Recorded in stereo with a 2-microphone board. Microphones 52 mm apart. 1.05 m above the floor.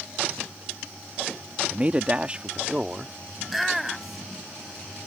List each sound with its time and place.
1.7 s a man speaking: 30° right (ahead or behind); by 3.1 s 20° right (ahead or behind)
3.4 s a shout: 5° right (ahead or behind)